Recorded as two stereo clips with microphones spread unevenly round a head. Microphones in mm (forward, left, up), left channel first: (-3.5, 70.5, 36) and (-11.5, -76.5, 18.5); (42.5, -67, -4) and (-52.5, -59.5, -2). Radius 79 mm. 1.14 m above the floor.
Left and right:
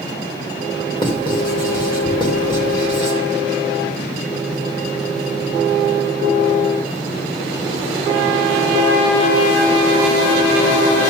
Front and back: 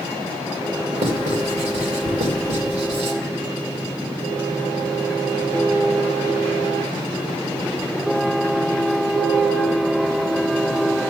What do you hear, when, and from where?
1.0 s writing: 145° left, 2.5 m